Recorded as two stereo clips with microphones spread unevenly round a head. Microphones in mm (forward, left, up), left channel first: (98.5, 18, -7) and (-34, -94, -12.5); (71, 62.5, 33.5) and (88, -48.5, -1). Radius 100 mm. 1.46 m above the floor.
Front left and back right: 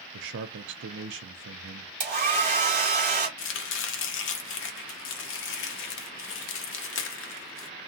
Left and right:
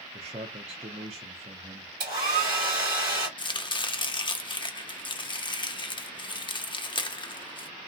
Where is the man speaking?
130° right, 0.6 m.